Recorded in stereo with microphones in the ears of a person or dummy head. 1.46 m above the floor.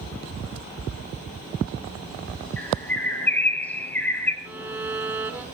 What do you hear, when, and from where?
2.6 s a bird: 5° left (ahead or behind), 5 m
4.5 s a violin: 15° right (ahead or behind), 1.8 m